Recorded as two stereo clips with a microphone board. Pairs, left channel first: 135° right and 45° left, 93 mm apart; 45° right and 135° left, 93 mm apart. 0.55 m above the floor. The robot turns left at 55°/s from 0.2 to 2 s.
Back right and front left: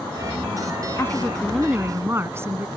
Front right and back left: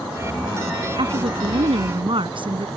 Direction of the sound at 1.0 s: 165° left.